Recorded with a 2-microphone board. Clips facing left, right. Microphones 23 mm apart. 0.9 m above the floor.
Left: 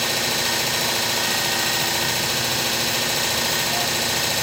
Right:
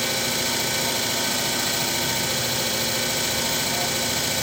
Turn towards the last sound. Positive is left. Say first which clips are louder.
# left 2 dB
turn(degrees=75)  # may be behind; listen again after turning